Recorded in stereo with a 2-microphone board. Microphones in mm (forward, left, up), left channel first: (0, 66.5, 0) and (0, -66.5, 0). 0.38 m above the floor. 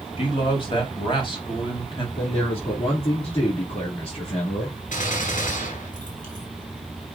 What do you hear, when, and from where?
0.2 s a man speaking: 35° left (ahead or behind), 3 m
2.2 s a man speaking: 45° left (ahead or behind), 4 m
4.9 s a gunshot: 65° left (ahead or behind), 2.5 m